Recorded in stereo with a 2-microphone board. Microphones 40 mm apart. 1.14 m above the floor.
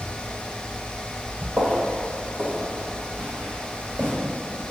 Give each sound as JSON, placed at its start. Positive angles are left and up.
{"t": 1.6, "sound": "footsteps", "side_deg": -40, "distance_m": 1.9}